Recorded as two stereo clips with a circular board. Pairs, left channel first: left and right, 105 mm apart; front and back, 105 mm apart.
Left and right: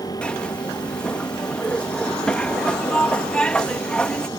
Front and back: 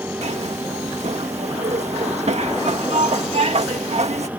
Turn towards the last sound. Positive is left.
turn(degrees=170)